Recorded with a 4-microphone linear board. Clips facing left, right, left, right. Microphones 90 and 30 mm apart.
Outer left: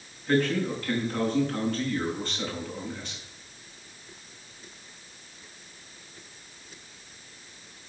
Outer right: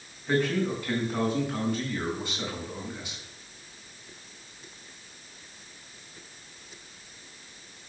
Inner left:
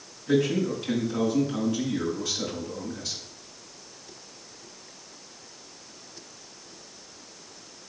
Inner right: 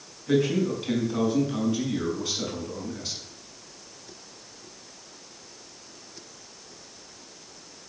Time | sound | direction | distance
0.3 | a man speaking | 15° right (ahead or behind) | 6 m